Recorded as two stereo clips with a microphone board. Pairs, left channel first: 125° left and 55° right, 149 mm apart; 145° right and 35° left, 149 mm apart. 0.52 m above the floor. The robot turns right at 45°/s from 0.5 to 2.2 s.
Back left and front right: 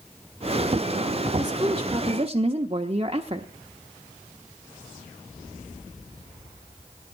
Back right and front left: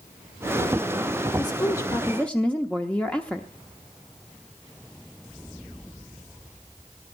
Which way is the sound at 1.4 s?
105° right.